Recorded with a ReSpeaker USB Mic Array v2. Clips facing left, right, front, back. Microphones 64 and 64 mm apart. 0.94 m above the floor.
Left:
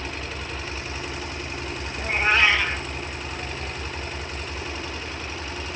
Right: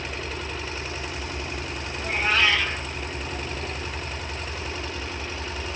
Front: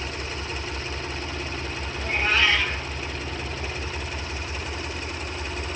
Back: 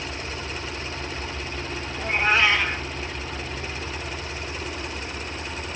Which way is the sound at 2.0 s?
135° left.